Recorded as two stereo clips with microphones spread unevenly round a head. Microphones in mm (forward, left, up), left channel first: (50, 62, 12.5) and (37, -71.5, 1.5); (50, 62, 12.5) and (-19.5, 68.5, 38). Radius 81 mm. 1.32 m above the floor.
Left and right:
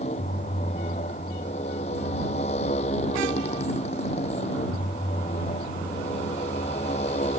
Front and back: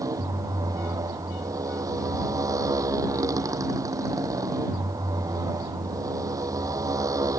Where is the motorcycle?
140° left.